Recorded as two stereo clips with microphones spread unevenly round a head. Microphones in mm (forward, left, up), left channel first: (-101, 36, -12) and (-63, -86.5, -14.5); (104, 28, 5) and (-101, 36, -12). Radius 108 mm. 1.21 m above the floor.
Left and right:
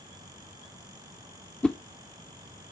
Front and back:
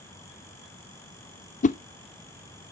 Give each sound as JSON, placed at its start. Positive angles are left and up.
{"t": 1.6, "sound": "a whoosh", "azimuth_deg": 25, "distance_m": 0.5}